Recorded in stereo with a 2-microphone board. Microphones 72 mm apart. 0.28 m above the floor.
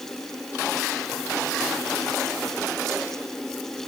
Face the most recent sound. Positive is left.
No sound to turn to.